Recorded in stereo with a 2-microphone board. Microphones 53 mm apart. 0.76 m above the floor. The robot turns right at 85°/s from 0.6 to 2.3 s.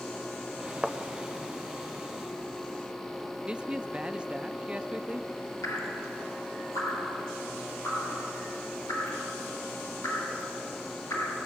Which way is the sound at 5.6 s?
80° left.